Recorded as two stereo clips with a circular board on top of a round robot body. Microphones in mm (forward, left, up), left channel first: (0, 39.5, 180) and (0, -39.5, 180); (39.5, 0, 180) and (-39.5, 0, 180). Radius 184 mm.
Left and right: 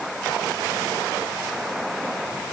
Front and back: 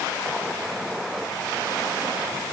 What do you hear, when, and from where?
Only background noise.